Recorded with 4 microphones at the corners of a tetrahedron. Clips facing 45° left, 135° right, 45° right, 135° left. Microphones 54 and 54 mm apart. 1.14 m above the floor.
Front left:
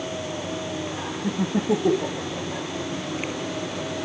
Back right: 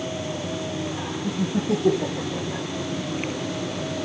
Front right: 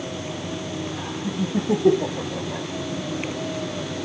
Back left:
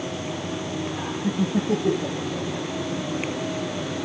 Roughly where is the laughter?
Left.